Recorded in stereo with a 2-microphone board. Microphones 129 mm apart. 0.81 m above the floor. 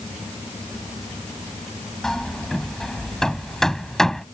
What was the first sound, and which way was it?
Hammering, 5° left (ahead or behind).